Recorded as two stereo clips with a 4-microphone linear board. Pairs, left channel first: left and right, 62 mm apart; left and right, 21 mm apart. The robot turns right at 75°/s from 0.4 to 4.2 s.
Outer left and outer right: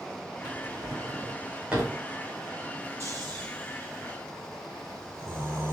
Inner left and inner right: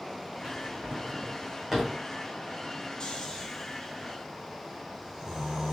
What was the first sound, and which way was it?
A drawer, 70° right (ahead or behind).